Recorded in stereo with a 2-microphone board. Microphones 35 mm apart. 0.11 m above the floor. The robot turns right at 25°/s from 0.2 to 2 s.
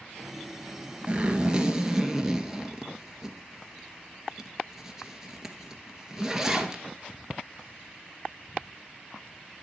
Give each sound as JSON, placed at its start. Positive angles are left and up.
{"t": 1.1, "sound": "a zipper", "side_deg": -25, "distance_m": 1.8}